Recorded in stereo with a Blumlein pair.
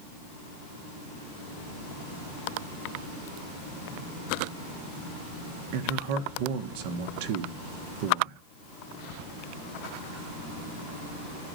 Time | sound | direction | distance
5.7 | a man speaking | 45° right | 1.3 m